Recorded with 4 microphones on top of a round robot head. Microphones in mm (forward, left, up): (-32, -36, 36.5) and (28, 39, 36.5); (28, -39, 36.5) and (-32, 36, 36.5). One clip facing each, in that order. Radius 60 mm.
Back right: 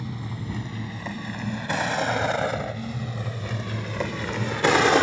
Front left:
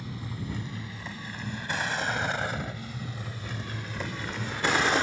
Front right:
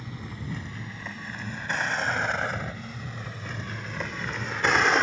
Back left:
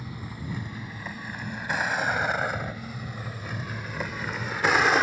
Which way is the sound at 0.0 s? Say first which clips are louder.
Back right 4 dB, back left 1 dB; 150° right.